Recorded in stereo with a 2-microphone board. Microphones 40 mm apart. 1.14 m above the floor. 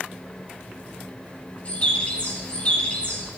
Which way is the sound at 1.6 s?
30° left (ahead or behind).